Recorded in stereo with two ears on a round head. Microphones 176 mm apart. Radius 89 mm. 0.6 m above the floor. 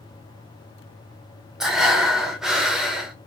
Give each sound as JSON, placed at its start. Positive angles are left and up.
{"t": 1.6, "sound": "breathing", "side_deg": 0, "distance_m": 0.7}